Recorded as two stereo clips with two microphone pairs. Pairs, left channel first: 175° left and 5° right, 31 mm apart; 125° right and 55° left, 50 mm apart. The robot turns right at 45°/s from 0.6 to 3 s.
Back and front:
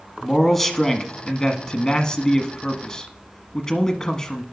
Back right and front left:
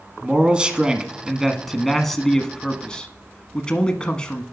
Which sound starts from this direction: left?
A man speaking, at 0.2 s.